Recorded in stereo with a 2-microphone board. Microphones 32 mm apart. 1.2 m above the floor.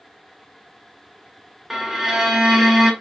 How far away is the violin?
About 0.5 m.